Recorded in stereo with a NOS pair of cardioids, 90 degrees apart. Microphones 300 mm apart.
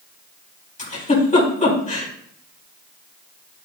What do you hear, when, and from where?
0.8 s a giggle: 25° left, 4 m